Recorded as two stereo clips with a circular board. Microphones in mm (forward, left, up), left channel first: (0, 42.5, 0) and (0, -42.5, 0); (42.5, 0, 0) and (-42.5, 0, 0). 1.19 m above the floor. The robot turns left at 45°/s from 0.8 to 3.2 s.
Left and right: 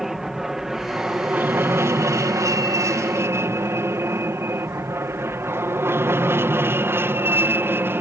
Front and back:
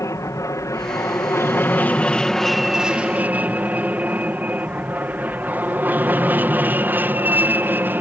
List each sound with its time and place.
0.0 s an aircraft: 5° right; by 8.0 s 130° right